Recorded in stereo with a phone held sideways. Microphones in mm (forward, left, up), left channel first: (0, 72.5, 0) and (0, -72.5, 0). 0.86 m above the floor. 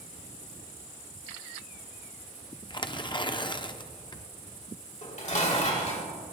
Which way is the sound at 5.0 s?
55° left (ahead or behind).